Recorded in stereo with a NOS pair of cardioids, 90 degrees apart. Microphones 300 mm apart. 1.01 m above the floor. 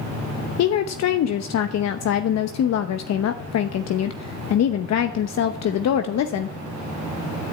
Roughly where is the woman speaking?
Ahead left.